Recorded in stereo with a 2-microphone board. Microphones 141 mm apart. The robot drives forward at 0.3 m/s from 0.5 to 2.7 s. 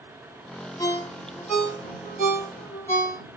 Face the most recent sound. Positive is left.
turn(degrees=25)  # may be behind; listen again after turning